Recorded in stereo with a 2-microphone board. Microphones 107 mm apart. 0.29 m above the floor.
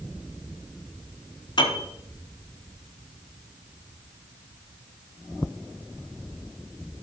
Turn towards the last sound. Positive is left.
turn(degrees=45)  # may be behind; listen again after turning